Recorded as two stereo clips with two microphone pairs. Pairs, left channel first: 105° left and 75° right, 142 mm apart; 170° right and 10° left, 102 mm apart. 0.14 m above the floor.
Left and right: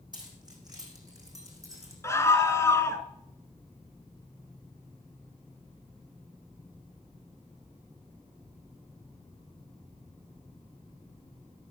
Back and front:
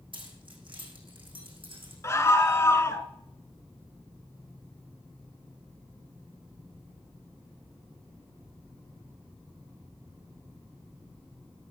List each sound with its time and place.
0.1 s keys jangling: 15° right, 4 m; by 1.9 s 10° right, 4.5 m
2.0 s a scream: 160° left, 1.5 m